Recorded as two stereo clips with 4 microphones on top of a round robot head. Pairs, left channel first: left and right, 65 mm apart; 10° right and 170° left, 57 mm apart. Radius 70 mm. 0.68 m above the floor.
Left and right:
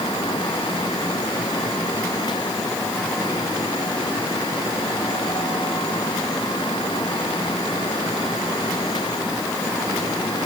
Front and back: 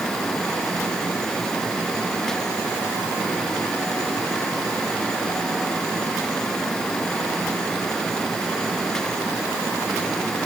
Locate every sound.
Only background noise.